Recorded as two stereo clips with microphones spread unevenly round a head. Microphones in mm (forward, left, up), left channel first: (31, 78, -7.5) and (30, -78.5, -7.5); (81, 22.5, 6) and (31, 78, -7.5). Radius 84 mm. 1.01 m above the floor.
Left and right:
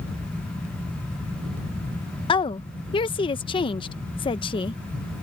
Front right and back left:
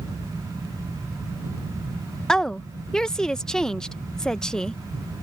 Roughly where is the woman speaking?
Ahead left.